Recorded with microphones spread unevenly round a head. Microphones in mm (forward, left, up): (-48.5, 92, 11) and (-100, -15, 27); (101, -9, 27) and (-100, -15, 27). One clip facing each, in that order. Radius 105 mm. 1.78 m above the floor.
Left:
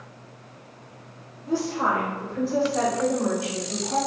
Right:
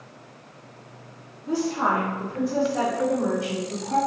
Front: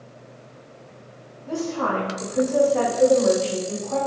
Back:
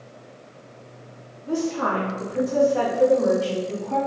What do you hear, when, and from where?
1.5 s a woman speaking: 110° right, 1.9 m; by 4.0 s 160° right, 2 m